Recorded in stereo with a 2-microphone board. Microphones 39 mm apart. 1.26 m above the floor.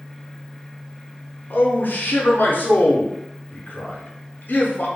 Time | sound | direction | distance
1.5 | a man speaking | 55° left (ahead or behind) | 0.6 m